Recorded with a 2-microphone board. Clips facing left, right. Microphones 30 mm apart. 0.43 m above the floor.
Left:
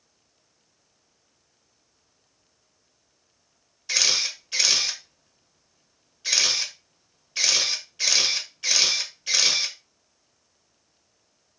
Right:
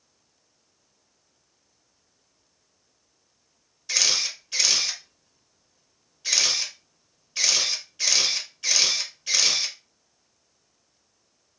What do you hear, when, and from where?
3.9 s a camera shutter: 10° left (ahead or behind), 0.6 m